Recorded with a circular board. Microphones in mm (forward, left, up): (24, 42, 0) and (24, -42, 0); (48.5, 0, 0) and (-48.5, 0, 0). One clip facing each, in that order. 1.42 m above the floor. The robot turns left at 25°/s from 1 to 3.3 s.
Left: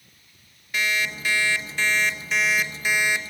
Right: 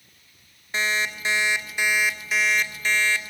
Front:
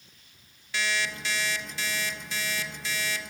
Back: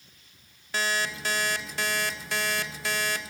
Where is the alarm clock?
145° right, 1.8 m; by 3.2 s 160° left, 1.8 m.